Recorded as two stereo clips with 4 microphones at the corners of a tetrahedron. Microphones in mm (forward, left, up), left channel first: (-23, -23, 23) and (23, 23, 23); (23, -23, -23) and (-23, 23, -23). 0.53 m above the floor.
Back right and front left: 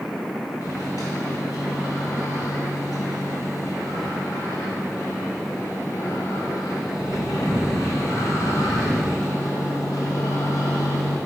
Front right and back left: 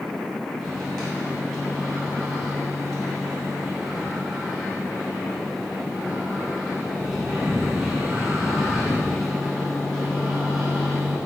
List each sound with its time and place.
0.6 s a microwave: 130° right, 2.5 m